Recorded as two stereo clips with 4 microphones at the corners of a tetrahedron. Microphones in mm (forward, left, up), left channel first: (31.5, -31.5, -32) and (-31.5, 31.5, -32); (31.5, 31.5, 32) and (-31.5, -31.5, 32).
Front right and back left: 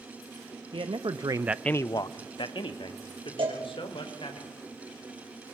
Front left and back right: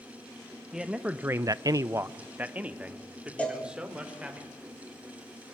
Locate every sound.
0.7 s a man speaking: 140° left, 1.3 m; by 4.4 s 55° right, 4 m
3.4 s a cowbell: 120° left, 6.5 m